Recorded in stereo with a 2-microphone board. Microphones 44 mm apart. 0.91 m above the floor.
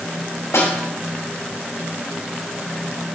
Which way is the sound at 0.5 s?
85° left.